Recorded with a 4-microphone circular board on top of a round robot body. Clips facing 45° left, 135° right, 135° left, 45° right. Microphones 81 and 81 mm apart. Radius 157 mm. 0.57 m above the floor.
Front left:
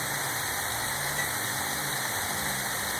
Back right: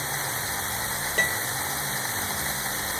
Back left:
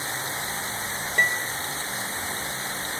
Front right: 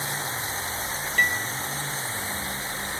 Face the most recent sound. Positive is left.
turn(degrees=-155)